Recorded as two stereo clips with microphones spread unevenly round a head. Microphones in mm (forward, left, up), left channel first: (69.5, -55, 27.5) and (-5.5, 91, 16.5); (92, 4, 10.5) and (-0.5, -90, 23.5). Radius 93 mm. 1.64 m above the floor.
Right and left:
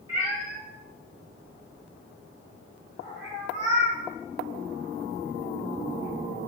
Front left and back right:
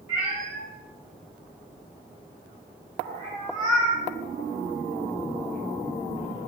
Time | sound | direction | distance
0.1 | a cat meowing | straight behind | 1.1 m